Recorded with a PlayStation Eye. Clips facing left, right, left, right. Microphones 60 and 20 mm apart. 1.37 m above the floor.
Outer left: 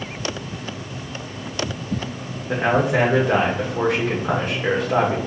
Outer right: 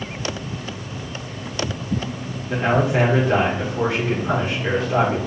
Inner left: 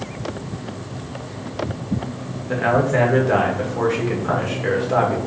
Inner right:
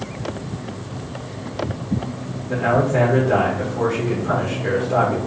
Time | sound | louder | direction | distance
2.5 | a man speaking | even, even | 65° left (ahead or behind) | 1.4 m